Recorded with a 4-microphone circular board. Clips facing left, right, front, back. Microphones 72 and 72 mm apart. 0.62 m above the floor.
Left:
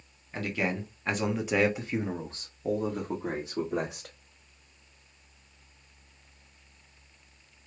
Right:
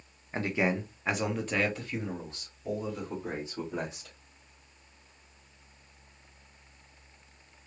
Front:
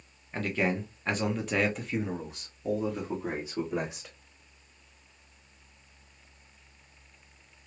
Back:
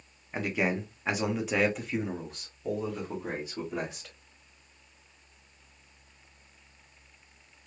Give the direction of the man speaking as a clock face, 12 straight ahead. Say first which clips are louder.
Right 2 dB, even; 4 o'clock.